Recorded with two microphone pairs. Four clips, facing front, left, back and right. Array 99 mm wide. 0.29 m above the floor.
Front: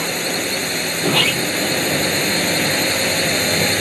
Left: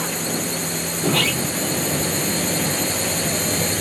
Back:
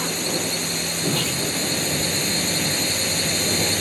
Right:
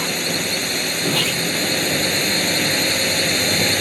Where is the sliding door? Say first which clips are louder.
Left 2 dB, front 6 dB; 15° left.